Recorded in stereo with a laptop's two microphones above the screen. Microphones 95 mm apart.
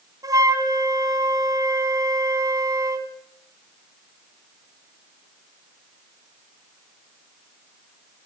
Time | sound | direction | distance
0.2 | a flute | 40° right (ahead or behind) | 2.5 m